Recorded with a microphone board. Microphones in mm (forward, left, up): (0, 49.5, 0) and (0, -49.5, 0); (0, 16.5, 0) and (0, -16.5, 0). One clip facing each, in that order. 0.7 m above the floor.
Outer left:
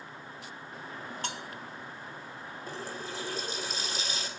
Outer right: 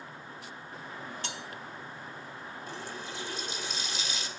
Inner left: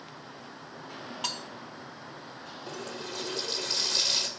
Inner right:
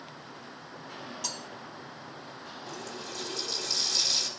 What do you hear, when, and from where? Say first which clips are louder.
1.2 s cutlery clinking: outer left 2 dB, inner left 6 dB; 50° left (ahead or behind), 0.6 m
2.7 s a running tap: outer left 3 dB, inner left 3 dB; 40° left (ahead or behind), 2.0 m